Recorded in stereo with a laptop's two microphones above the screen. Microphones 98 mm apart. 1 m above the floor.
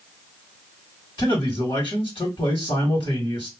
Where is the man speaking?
55° left (ahead or behind), 1.7 m.